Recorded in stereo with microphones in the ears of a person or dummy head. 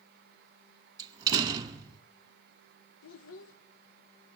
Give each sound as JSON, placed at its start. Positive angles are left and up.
{"t": 1.0, "sound": "a door slam", "side_deg": -20, "distance_m": 1.6}
{"t": 3.0, "sound": "a child speaking", "side_deg": 85, "distance_m": 0.8}